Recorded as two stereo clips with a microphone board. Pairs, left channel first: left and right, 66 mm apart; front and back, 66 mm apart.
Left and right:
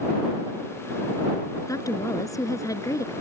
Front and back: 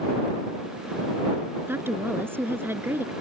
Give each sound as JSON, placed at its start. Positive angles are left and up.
{"t": 1.7, "sound": "a woman speaking", "azimuth_deg": 125}